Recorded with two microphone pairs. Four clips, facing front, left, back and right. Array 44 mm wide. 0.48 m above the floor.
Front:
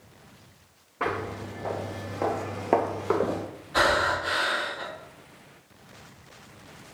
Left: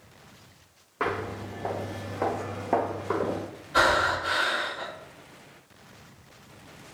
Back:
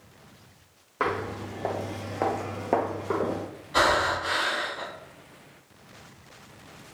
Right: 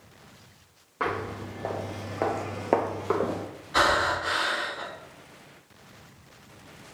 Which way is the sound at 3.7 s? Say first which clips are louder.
Left 1 dB, even; 130° right.